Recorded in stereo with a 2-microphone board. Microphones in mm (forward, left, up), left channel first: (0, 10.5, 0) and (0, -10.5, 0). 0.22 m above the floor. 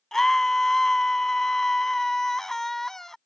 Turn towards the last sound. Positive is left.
turn(degrees=20)  # may be behind; listen again after turning